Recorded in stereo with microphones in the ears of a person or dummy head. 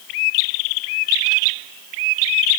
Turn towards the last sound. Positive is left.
No sound to turn to.